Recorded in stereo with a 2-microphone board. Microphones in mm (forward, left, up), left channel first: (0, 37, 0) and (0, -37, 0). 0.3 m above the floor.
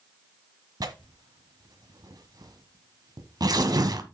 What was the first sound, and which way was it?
Tearing paper, 60° right (ahead or behind).